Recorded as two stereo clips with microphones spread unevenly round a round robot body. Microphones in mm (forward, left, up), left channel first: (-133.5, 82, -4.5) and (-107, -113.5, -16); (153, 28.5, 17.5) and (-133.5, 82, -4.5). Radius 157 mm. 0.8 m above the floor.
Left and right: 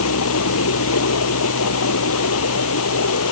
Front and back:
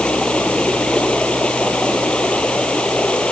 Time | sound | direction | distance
0.0 | running water | 75° left | ?